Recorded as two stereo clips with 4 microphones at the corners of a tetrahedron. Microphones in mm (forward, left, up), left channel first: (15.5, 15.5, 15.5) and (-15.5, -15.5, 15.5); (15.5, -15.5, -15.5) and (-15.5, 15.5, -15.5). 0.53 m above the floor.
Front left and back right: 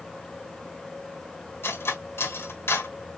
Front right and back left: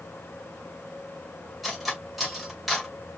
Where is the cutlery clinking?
45° left, 1.5 m.